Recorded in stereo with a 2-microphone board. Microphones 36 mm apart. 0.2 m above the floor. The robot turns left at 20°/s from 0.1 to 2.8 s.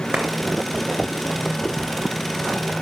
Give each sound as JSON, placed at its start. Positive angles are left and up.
{"t": 0.1, "sound": "a clap", "side_deg": -45, "distance_m": 2.5}